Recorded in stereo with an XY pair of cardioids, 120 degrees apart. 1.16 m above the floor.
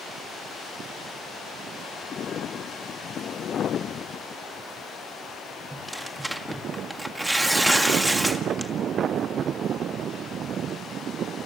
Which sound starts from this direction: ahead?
Tearing paper, at 5.7 s.